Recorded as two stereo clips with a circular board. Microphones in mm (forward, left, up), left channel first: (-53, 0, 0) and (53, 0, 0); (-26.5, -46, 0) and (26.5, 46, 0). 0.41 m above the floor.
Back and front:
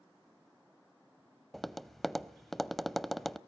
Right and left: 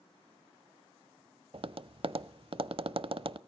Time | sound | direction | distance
1.5 | tapping | 90° left | 0.6 m